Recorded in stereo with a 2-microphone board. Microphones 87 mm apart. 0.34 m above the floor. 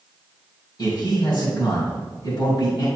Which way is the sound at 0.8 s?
55° left (ahead or behind).